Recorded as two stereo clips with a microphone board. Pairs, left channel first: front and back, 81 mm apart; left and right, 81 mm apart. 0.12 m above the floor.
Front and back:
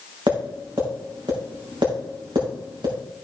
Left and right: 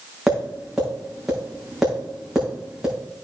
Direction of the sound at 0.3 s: 175° right.